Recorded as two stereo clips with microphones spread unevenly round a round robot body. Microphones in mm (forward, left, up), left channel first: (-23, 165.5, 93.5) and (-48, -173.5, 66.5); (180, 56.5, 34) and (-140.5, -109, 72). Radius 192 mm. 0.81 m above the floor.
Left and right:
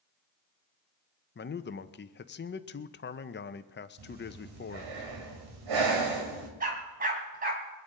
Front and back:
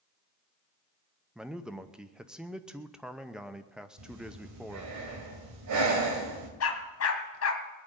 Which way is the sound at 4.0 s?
110° right.